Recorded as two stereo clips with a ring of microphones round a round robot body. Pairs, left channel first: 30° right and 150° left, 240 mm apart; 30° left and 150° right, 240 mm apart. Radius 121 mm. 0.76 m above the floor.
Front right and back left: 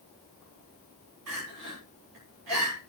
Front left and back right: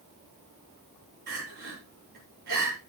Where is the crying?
160° left, 8 m.